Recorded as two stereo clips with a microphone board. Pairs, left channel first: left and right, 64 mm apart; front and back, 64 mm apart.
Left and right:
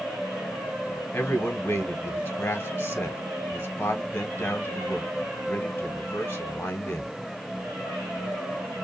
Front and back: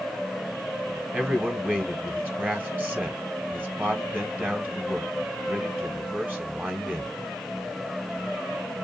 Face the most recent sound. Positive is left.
turn(degrees=130)